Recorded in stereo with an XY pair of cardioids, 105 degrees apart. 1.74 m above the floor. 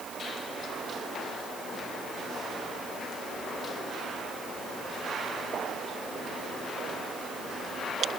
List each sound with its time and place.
Only background noise.